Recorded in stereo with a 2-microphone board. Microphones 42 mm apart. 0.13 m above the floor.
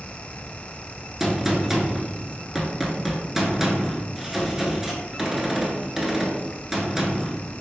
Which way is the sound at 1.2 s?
10° right (ahead or behind).